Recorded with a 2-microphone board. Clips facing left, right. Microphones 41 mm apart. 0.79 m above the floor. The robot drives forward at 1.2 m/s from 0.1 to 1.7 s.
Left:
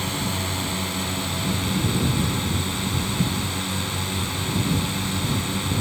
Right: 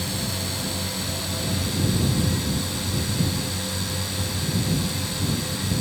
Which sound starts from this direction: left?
A drone, at 0.0 s.